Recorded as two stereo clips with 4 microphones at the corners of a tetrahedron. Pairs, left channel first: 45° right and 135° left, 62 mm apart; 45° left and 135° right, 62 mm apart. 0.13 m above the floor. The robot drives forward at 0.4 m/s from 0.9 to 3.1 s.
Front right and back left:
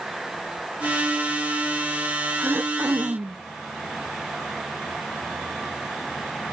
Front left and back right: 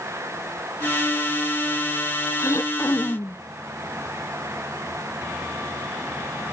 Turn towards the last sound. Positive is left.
turn(degrees=90)